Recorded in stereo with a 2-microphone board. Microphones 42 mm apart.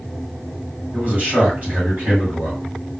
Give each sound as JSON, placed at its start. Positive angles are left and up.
{"t": 0.9, "sound": "a man speaking", "side_deg": -40, "distance_m": 1.8}